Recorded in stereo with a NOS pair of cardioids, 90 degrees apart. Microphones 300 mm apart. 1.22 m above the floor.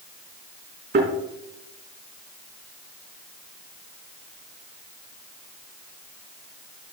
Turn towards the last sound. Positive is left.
turn(degrees=-35)